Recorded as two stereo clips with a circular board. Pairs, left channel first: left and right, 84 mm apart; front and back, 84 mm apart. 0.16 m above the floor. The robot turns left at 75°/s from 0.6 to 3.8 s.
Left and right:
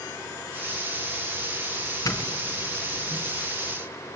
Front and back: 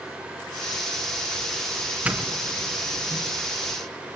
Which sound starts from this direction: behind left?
A doorbell, at 2.0 s.